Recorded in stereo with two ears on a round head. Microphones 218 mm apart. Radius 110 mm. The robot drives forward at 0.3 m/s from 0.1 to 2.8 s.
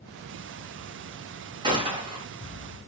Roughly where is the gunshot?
Centre.